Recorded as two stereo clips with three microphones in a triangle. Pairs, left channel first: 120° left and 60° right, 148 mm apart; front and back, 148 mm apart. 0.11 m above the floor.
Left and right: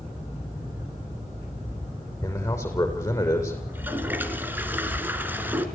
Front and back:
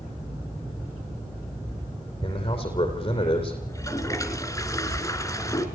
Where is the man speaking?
50° left, 5.5 m.